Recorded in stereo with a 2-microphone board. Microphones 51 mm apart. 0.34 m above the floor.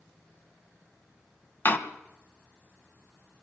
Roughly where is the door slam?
Left.